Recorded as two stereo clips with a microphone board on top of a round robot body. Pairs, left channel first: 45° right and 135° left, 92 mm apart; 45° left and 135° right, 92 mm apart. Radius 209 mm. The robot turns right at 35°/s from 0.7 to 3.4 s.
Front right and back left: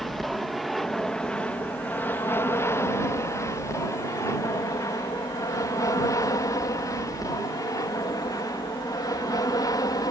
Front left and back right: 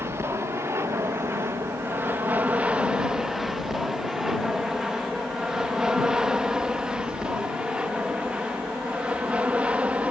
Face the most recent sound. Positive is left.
turn(degrees=-65)